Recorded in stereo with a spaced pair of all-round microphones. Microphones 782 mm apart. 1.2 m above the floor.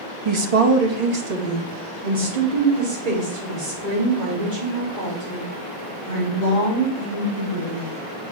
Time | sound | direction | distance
0.2 | a woman speaking | 35° right (ahead or behind) | 0.8 m